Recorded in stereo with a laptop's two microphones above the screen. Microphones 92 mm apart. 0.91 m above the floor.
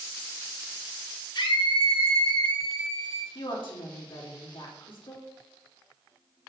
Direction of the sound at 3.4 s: 65° left (ahead or behind).